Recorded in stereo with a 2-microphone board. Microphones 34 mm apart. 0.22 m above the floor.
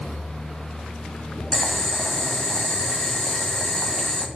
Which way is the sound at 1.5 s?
20° left (ahead or behind).